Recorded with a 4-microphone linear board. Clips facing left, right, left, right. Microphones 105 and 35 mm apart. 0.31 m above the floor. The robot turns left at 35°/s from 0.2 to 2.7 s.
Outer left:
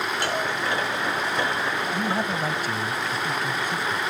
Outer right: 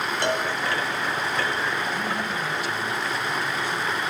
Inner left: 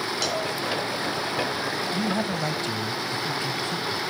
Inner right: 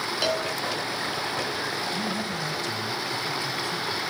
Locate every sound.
0.2 s a cowbell: 25° right (ahead or behind), 2.5 m; by 0.5 s 15° right (ahead or behind), 2.5 m
1.9 s a man speaking: 35° left (ahead or behind), 1.3 m; by 4.0 s 45° left (ahead or behind), 1.3 m